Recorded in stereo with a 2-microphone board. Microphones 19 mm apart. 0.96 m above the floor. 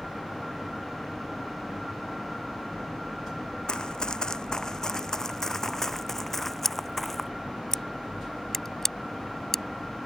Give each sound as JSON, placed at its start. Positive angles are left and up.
{"t": 3.7, "sound": "running footsteps", "side_deg": 50}
{"t": 6.6, "sound": "scissors", "side_deg": 20}